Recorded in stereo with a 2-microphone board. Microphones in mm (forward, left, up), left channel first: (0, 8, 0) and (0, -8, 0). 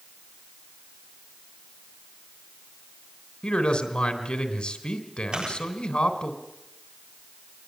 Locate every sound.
3.4 s a man speaking: 65° left (ahead or behind), 3.5 m
5.3 s chewing: 65° right (ahead or behind), 9 m